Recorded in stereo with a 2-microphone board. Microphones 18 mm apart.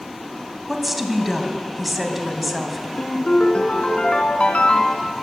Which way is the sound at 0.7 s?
15° right (ahead or behind).